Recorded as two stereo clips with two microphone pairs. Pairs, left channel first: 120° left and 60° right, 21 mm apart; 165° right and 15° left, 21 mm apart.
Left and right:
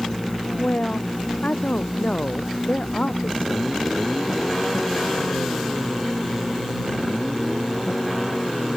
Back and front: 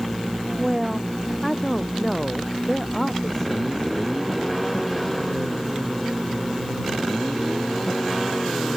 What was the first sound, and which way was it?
A woman speaking, 110° left.